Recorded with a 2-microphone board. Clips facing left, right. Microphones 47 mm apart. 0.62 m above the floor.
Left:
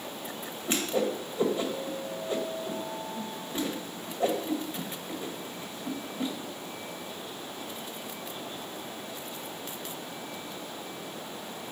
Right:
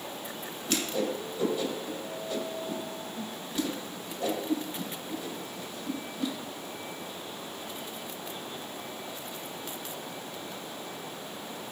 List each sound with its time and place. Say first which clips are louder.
0.7 s a whoosh: left 2 dB; 25° left (ahead or behind), 1.6 m